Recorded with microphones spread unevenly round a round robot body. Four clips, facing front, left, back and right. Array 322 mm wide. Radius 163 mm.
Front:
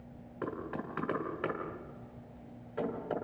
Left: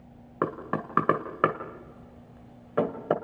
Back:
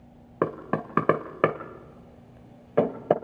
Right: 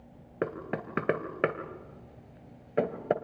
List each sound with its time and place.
0.4 s knocking: 175° left, 1.7 m